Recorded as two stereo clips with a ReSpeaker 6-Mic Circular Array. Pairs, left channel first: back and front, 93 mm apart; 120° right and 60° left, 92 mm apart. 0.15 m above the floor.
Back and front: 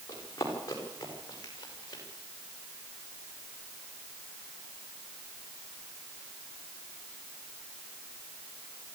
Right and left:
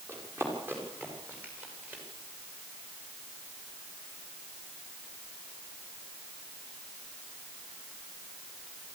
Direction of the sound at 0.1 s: 125° left.